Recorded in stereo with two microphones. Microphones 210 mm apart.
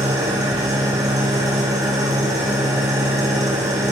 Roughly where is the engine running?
Centre.